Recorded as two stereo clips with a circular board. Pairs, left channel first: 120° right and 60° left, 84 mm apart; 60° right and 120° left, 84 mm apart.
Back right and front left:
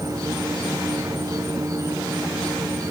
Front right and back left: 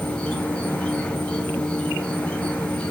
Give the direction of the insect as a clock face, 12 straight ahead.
12 o'clock.